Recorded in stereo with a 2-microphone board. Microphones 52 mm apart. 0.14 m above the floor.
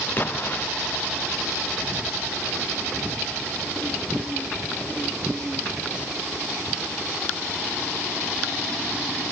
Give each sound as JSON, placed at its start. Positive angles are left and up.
{"t": 0.2, "sound": "an explosion", "side_deg": 40}